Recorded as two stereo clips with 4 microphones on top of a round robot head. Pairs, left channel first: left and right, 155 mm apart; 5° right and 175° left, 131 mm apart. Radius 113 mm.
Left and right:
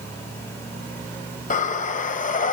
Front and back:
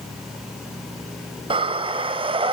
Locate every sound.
1.5 s breathing: 125° left, 1.4 m